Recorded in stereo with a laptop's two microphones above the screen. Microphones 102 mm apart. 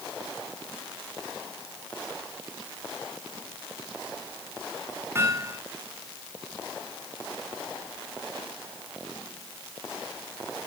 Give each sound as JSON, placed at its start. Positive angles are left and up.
{"t": 5.2, "sound": "hammering", "side_deg": -25, "distance_m": 7.0}